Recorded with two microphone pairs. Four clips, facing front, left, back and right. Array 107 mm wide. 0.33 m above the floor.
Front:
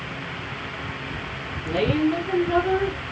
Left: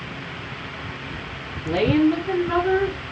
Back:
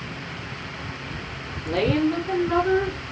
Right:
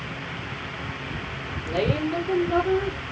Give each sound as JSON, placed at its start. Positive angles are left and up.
{"t": 1.6, "sound": "a woman speaking", "azimuth_deg": 85, "distance_m": 4.5}